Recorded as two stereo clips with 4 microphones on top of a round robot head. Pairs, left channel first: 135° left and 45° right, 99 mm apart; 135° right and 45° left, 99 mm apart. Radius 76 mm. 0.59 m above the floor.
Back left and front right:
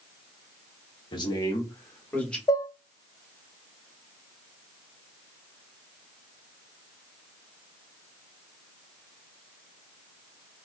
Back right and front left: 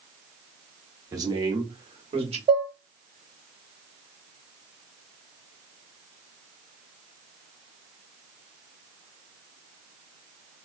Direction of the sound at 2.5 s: 80° left.